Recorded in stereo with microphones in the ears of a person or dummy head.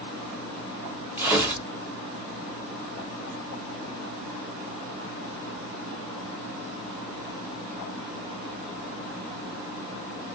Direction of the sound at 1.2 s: 15° right (ahead or behind).